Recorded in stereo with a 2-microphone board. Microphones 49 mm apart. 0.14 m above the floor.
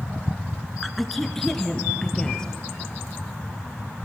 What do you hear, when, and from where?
0.8 s a woman speaking: centre (ahead or behind), 1.3 m; by 2.5 s 15° left (ahead or behind), 2.5 m